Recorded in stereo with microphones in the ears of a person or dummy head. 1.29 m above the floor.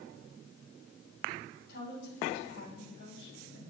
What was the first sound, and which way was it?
A woman speaking, 60° left (ahead or behind).